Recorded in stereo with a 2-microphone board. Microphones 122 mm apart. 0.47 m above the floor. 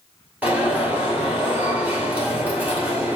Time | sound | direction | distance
0.4 | an alarm | 10° right (ahead or behind) | 2.5 m